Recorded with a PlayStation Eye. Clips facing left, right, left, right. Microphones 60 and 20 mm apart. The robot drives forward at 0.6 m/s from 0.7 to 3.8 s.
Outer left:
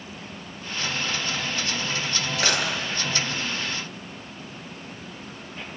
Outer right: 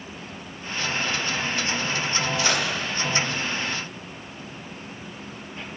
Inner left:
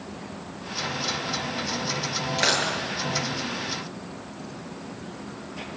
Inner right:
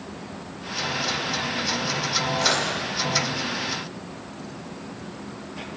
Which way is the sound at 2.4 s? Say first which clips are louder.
Outer left 2 dB, inner left 2 dB; 75° left (ahead or behind).